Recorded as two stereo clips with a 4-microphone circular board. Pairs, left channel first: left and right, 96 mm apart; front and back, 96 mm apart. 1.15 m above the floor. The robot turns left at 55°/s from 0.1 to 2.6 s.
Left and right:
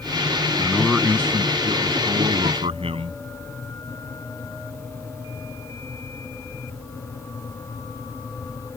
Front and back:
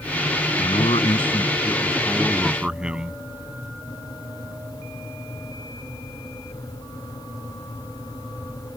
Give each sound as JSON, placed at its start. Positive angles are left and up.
{"t": 0.6, "sound": "a man speaking", "azimuth_deg": 10}